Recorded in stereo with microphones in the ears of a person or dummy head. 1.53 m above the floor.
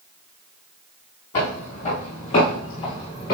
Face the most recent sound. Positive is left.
turn(degrees=10)  # may be behind; listen again after turning